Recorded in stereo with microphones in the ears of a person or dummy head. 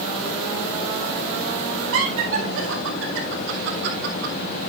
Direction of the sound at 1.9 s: 85° right.